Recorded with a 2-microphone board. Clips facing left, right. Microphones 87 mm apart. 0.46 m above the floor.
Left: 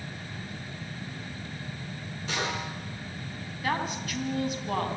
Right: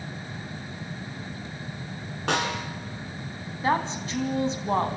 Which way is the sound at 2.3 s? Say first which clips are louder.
Right 5 dB; 65° right (ahead or behind).